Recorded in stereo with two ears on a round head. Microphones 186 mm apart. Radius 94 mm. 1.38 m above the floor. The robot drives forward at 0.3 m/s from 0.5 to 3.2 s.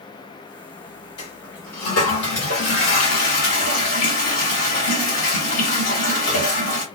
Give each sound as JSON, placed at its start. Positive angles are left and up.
{"t": 1.2, "sound": "a toilet flushing", "side_deg": 80, "distance_m": 3.0}